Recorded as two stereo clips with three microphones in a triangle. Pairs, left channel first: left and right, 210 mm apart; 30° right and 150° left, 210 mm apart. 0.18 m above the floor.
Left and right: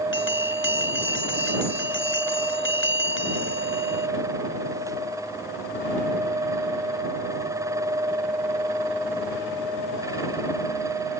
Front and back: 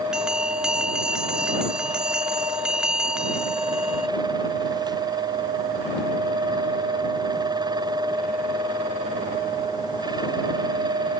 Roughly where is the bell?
Ahead left.